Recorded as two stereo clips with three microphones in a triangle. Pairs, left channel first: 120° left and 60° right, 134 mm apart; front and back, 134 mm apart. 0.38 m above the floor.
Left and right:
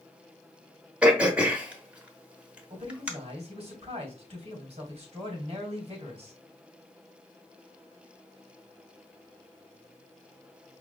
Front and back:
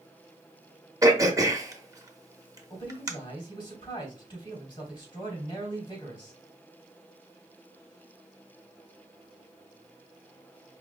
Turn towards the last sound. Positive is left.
turn(degrees=-40)